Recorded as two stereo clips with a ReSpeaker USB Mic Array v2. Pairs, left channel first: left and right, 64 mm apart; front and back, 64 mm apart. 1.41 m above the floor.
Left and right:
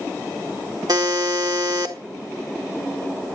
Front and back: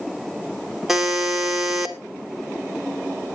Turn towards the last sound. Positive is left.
turn(degrees=-95)